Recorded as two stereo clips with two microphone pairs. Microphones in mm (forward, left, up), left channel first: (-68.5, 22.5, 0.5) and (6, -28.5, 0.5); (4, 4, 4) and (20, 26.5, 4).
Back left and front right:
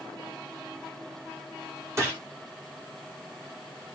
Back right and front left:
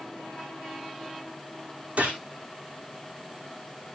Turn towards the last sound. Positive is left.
turn(degrees=25)